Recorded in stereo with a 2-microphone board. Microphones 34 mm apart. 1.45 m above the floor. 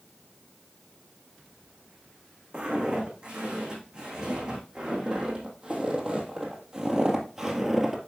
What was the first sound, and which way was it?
Footsteps, 25° right (ahead or behind).